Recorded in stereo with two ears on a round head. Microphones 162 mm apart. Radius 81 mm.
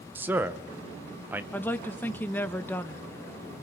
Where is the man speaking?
10° right (ahead or behind), 0.8 m.